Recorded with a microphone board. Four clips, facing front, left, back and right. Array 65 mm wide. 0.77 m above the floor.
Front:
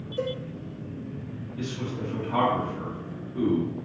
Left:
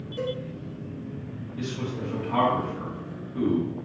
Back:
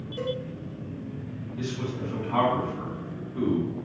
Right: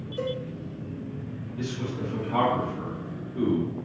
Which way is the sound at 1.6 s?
100° left.